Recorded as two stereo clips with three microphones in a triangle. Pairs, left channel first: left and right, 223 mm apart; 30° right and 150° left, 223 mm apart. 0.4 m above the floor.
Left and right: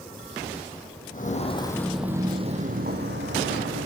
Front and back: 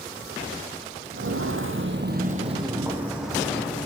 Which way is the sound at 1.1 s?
135° left.